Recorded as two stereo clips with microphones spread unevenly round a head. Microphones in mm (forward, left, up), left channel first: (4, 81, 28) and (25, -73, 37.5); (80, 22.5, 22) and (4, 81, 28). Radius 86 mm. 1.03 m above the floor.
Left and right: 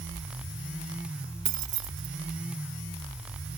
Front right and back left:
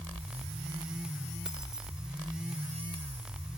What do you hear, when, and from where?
1.4 s keys jangling: 135° right